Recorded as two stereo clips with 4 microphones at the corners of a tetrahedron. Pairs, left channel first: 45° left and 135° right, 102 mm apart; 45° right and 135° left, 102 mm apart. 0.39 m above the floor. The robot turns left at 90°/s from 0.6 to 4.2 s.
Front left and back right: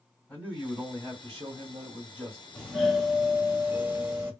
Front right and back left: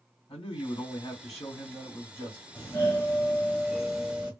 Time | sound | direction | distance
0.3 | a man speaking | 35° right | 2 m
2.5 | a doorbell | 10° right | 1.7 m